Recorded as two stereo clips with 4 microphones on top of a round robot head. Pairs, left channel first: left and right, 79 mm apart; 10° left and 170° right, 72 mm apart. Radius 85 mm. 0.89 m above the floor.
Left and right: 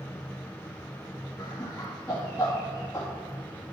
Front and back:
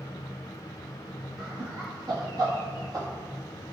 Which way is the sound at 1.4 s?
160° left.